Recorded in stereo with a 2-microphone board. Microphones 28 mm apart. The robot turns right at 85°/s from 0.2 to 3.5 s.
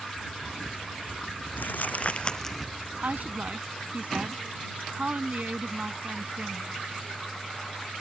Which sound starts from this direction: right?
A woman speaking, at 3.0 s.